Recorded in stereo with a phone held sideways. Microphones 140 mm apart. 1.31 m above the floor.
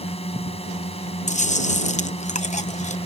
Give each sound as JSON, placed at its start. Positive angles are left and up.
{"t": 0.0, "sound": "a drone", "side_deg": 45}
{"t": 1.3, "sound": "chewing", "side_deg": 60}